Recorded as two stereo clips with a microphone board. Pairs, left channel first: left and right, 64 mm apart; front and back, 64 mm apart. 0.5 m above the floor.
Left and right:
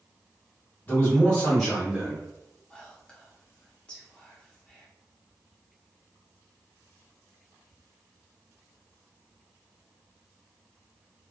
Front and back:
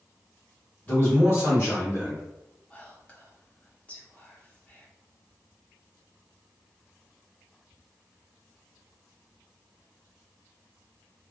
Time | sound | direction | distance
0.9 | a man speaking | 45° left | 1.5 m
2.7 | whispering | 40° left | 0.7 m